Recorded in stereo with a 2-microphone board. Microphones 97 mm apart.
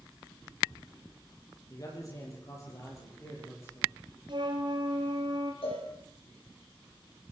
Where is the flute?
55° right (ahead or behind), 3 m.